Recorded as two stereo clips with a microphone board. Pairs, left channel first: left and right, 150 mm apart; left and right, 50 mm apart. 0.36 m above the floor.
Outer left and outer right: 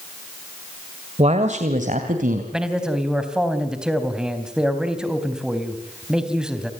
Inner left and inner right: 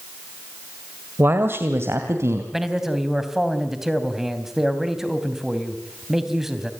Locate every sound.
1.2 s a man speaking: 45° right (ahead or behind), 1.7 m; by 2.4 s 65° right (ahead or behind), 3 m
2.5 s a man speaking: 5° right (ahead or behind), 3 m